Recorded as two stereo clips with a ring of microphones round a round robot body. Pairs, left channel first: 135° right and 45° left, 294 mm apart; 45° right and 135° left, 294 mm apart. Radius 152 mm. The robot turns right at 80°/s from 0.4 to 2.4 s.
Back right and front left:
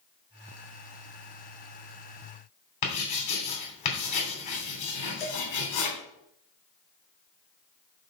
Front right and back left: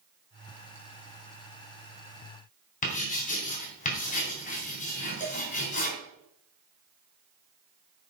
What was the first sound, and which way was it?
Writing, 110° right.